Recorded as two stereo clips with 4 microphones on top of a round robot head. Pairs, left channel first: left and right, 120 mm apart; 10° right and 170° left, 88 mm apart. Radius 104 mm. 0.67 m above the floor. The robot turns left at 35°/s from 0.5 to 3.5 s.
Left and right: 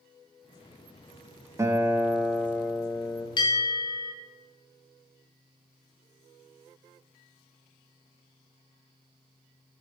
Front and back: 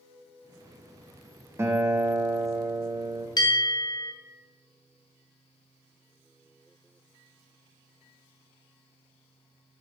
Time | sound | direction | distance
1.6 | a guitar | 145° right | 0.9 m
3.4 | a bell | 35° left | 1.1 m